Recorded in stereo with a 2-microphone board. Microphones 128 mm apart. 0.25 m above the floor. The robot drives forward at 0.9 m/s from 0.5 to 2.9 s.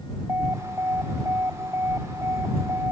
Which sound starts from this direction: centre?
An alarm, at 0.3 s.